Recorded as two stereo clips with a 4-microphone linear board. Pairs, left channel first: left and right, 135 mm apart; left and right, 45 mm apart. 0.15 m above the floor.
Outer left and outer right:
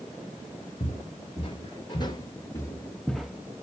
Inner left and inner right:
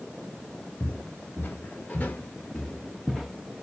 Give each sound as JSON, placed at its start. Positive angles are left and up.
{"t": 0.8, "sound": "footsteps", "side_deg": 45, "distance_m": 2.5}